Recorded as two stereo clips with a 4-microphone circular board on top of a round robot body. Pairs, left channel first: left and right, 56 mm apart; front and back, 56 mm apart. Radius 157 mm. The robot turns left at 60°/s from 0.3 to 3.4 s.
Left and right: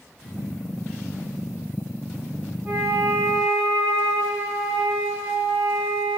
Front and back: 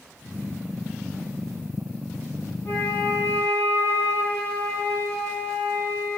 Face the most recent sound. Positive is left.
turn(degrees=-65)